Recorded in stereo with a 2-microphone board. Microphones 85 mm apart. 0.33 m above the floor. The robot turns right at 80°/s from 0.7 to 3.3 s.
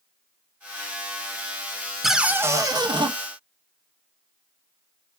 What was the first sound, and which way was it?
A cupboard door, straight behind.